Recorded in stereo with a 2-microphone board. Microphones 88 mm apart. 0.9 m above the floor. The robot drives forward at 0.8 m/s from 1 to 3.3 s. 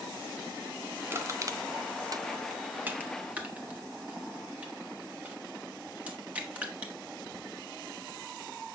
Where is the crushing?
25° right (ahead or behind), 0.8 m; by 6.9 s 15° right (ahead or behind), 1.2 m.